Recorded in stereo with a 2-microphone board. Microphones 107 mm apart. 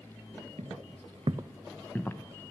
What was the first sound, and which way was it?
Footsteps, 80° right.